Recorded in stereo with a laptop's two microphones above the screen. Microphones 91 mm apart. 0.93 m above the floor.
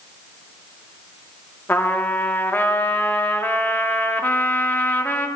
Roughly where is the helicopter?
No helicopter in this recording.